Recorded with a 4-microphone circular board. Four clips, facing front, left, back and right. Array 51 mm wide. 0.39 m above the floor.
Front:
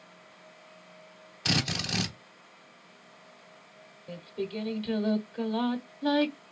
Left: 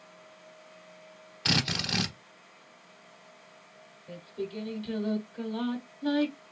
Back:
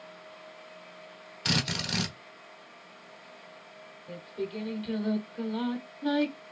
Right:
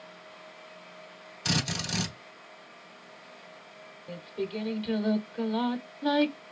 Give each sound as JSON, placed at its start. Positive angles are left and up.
{"t": 1.4, "sound": "a drill", "azimuth_deg": 105, "distance_m": 1.2}
{"t": 4.1, "sound": "singing", "azimuth_deg": -55, "distance_m": 0.9}